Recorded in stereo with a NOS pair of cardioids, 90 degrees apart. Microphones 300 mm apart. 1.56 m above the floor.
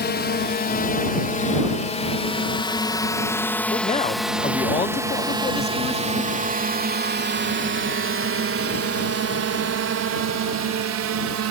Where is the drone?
35° left; by 11.5 s 70° right.